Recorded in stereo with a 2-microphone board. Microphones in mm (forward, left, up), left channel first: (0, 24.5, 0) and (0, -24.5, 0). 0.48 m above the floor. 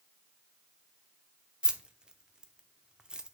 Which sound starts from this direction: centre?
Keys jangling, at 1.6 s.